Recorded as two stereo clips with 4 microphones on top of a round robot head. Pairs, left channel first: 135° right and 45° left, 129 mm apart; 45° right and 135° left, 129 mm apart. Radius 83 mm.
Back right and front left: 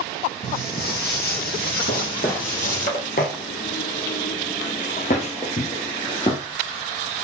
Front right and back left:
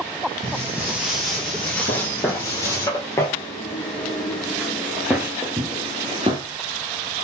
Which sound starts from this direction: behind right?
Footsteps, at 0.4 s.